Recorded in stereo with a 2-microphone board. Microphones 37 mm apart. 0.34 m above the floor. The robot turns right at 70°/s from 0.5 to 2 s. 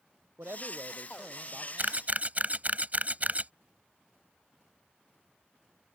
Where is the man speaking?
95° right; by 1.7 s 10° right.